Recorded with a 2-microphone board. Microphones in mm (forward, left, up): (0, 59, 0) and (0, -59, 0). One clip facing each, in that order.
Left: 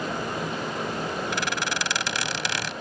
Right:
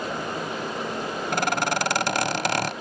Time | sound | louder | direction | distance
1.3 | a squeak | right 5 dB | 50° right (ahead or behind) | ?